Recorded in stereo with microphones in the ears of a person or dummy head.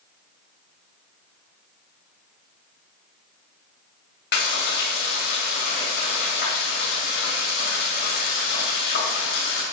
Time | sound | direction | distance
4.3 | frying | 60° left (ahead or behind) | 2.5 m